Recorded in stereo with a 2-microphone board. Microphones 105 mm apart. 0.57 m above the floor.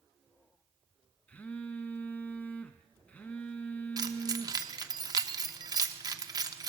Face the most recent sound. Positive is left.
turn(degrees=-35)  # may be behind; listen again after turning